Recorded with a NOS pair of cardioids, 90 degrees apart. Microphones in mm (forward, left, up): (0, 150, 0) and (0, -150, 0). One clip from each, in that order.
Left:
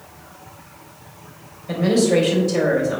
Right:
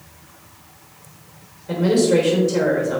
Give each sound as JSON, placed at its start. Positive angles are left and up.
{"t": 1.7, "sound": "a woman speaking", "azimuth_deg": 0, "distance_m": 3.0}